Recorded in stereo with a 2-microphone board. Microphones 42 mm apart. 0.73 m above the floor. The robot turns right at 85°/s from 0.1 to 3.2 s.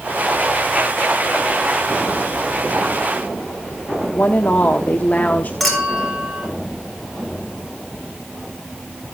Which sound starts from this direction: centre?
A clink, at 5.6 s.